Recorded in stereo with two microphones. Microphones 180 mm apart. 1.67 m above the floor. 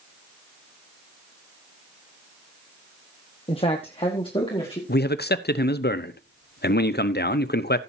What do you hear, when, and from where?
3.5 s a man speaking: 30° left (ahead or behind), 1.2 m
4.9 s a man speaking: 65° left (ahead or behind), 0.7 m